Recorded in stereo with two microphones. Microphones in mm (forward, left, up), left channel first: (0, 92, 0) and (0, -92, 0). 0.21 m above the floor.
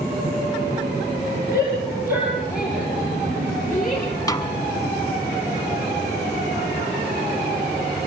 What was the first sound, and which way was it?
A shout, 60° left (ahead or behind).